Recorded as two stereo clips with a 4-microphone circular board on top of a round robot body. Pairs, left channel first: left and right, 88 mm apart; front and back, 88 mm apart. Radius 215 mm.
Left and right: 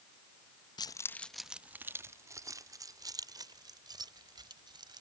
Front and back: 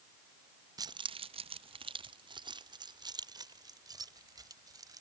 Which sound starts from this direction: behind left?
Keys jangling, at 0.8 s.